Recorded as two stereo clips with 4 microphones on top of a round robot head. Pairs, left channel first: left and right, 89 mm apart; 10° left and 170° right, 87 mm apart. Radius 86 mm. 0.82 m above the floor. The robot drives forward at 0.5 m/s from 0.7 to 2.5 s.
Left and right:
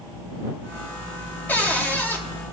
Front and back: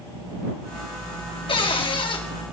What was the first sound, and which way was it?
A cupboard door, 20° left.